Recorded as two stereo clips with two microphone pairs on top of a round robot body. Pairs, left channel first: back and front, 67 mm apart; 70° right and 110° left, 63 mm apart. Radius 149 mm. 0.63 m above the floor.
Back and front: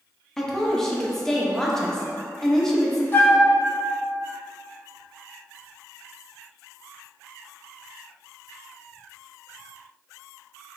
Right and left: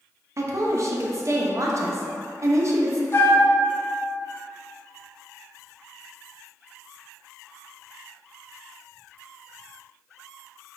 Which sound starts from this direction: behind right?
A flute, at 3.1 s.